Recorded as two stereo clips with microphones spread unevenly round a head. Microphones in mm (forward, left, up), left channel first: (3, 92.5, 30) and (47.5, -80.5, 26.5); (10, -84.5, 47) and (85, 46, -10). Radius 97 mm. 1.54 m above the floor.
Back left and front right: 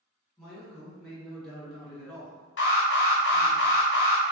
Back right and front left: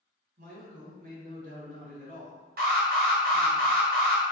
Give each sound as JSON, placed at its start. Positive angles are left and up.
{"t": 0.4, "sound": "a man speaking", "azimuth_deg": 15, "distance_m": 1.8}
{"t": 2.6, "sound": "an alarm", "azimuth_deg": 80, "distance_m": 1.0}